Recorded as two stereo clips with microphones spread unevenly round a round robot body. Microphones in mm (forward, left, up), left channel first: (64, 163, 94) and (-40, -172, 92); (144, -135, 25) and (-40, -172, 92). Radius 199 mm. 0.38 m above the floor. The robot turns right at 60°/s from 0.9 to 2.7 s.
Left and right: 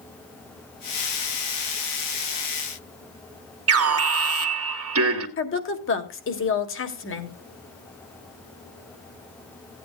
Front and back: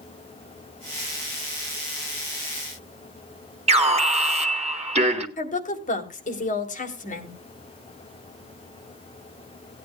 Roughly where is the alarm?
Right.